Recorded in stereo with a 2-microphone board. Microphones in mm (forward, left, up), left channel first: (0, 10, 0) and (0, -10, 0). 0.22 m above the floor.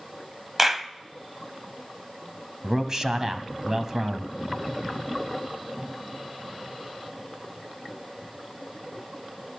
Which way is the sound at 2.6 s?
30° right (ahead or behind).